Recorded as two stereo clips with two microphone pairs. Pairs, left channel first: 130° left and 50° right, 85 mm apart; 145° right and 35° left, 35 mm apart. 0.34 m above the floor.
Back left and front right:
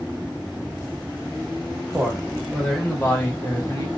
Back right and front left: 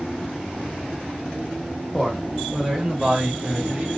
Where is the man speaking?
90° right, 1.2 m; by 3.9 s 90° left, 1.5 m.